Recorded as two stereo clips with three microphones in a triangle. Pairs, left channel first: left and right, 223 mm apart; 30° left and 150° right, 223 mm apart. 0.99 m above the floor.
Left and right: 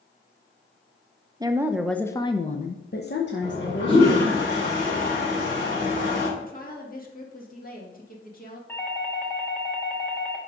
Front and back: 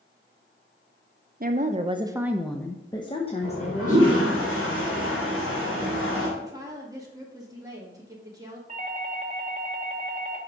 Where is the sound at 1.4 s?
155° right, 0.7 m; by 4.4 s 75° left, 1.4 m.